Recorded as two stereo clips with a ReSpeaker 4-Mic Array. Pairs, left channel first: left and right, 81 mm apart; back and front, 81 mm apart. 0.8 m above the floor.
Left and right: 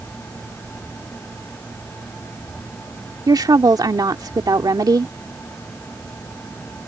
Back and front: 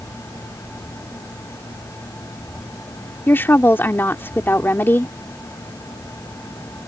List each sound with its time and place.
3.3 s a woman speaking: 120° right